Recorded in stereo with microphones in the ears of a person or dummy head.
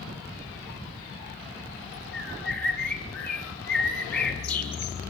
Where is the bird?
5° left (ahead or behind), 9 m.